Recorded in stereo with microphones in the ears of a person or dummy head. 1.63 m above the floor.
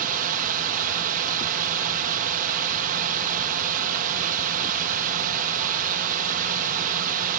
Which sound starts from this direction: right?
A drone, at 0.0 s.